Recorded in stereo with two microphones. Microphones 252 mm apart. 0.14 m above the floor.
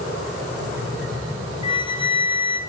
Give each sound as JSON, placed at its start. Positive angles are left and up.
{"t": 1.6, "sound": "a flute", "side_deg": 20, "distance_m": 0.9}